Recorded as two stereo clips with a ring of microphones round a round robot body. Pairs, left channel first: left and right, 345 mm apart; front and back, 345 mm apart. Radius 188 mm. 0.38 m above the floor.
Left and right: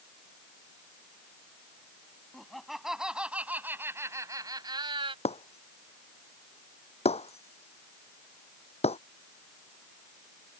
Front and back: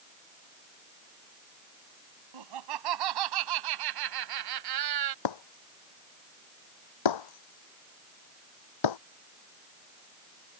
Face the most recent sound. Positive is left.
turn(degrees=15)